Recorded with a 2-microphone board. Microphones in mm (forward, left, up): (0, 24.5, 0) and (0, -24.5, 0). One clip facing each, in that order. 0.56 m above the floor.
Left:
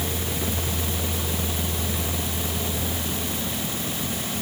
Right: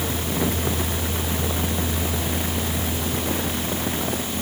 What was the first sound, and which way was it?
Only background noise.